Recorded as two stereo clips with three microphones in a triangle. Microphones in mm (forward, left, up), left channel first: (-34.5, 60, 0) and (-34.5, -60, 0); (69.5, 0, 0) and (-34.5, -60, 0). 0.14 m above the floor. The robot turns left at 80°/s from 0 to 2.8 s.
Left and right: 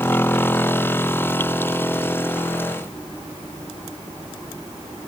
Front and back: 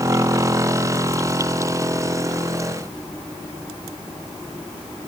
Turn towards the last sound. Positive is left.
No sound to turn to.